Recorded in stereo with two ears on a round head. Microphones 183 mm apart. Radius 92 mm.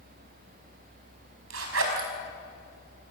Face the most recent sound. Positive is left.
turn(degrees=-70)  # may be behind; listen again after turning